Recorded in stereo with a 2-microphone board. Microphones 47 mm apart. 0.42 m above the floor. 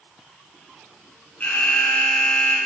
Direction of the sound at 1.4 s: 30° left (ahead or behind).